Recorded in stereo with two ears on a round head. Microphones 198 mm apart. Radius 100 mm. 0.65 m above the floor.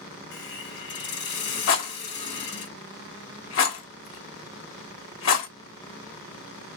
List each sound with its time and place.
0.3 s a hiss: 50° left (ahead or behind), 1.3 m
1.7 s a rattle: 65° left (ahead or behind), 0.9 m